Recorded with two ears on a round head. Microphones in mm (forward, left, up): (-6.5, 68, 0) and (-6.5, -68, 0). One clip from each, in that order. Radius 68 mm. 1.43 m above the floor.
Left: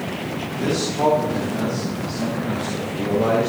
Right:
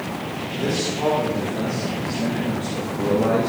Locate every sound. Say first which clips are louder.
0.6 s a man speaking: left 3 dB; 25° left (ahead or behind), 4.5 m; by 3.5 s 60° left (ahead or behind), 3 m